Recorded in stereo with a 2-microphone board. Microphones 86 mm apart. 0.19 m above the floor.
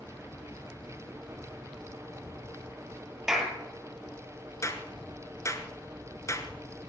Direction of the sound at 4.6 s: 35° left (ahead or behind).